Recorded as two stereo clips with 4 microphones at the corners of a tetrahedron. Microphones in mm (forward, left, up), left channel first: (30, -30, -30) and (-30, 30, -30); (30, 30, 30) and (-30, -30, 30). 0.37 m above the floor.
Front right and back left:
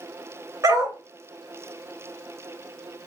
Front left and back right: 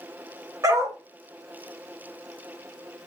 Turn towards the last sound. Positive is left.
turn(degrees=180)